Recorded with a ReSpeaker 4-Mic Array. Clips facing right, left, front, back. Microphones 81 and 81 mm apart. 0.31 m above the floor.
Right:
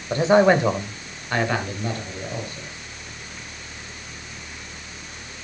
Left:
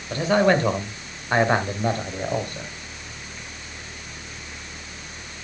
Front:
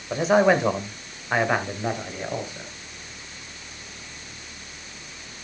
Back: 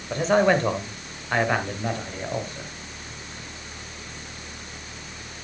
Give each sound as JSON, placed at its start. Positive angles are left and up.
{"t": 0.1, "sound": "a man speaking", "azimuth_deg": -75, "distance_m": 1.5}